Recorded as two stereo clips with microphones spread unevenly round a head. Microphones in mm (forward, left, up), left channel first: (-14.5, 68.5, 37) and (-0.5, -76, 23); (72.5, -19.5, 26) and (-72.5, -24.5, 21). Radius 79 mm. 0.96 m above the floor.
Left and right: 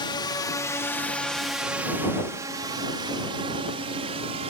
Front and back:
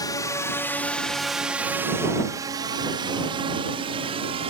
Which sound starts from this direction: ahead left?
A drone, at 0.0 s.